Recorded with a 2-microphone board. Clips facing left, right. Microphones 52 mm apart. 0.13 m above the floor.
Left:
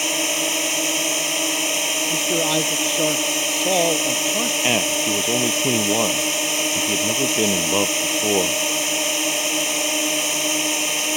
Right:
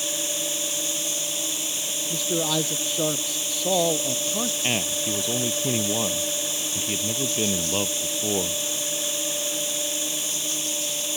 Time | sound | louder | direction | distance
0.0 | a drone | left 8 dB | 65° left (ahead or behind) | ?
2.1 | a man speaking | left 3 dB | 15° left (ahead or behind) | ?
4.6 | a man speaking | left 7 dB | 35° left (ahead or behind) | ?